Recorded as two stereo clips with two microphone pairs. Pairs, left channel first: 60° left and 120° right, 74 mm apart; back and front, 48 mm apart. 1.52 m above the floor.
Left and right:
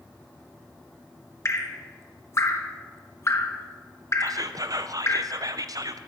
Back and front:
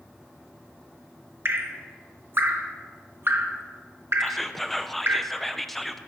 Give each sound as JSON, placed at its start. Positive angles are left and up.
{"t": 1.4, "sound": "dripping", "azimuth_deg": 20, "distance_m": 0.9}
{"t": 4.2, "sound": "whispering", "azimuth_deg": -100, "distance_m": 0.6}